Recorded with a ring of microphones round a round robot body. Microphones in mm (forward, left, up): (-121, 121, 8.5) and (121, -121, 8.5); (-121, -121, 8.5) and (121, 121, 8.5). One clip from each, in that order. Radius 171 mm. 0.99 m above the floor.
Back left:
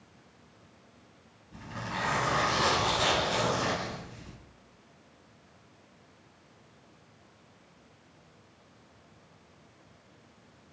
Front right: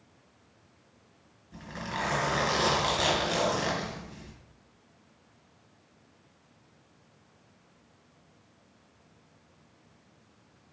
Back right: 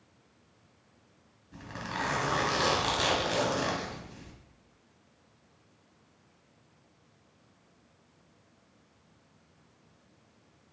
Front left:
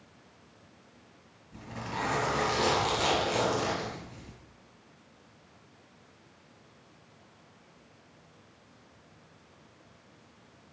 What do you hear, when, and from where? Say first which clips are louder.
1.5 s a zipper: front right 1 dB, even; 120° right, 3 m